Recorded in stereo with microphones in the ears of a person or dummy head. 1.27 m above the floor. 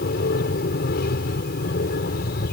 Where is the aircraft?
60° left (ahead or behind).